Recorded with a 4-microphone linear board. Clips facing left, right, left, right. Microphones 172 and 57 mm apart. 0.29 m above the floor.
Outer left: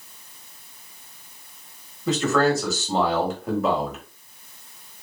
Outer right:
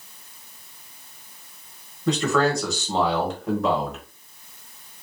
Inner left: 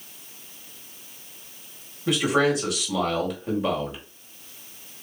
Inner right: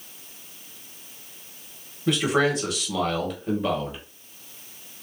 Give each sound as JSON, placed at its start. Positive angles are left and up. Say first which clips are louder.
{"t": 2.1, "sound": "a man speaking", "louder": "outer left 1 dB, inner left 1 dB", "side_deg": 5, "distance_m": 1.3}